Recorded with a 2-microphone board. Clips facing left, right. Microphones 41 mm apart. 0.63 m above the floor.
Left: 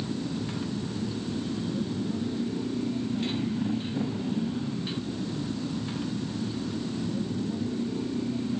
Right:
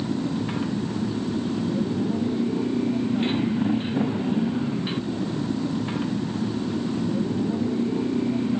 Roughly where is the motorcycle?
Right.